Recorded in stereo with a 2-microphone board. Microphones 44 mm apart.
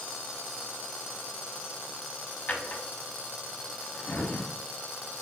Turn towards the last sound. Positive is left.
turn(degrees=40)  # may be behind; listen again after turning